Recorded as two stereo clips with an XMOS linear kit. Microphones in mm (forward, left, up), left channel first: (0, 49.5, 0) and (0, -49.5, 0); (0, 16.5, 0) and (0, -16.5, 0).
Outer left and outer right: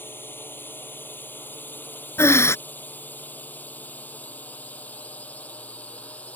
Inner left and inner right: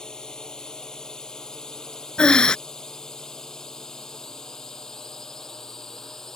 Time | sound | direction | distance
0.0 | a drone | 20° left (ahead or behind) | ?
2.2 | breathing | 25° left (ahead or behind) | ?